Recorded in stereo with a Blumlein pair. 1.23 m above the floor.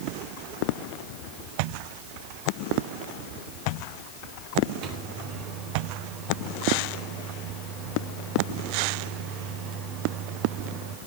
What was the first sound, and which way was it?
A microwave, 35° right.